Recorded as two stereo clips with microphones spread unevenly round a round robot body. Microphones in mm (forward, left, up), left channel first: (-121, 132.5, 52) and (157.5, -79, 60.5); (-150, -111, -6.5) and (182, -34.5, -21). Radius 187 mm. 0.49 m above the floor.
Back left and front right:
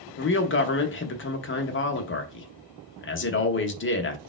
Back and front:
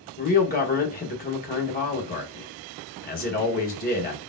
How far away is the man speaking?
About 0.9 m.